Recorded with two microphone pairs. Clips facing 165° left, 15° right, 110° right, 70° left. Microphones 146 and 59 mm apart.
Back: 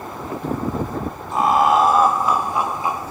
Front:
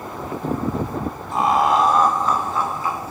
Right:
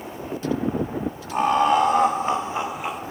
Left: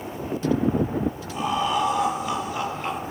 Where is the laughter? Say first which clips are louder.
Back 2 dB, right 7 dB; 100° right, 2.0 m; by 3.0 s 150° left, 0.9 m.